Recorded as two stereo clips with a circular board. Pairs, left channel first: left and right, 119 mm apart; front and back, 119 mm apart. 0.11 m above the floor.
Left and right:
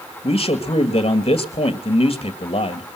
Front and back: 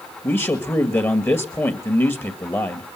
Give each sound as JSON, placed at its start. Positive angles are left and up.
{"t": 0.2, "sound": "a man speaking", "azimuth_deg": 65, "distance_m": 2.0}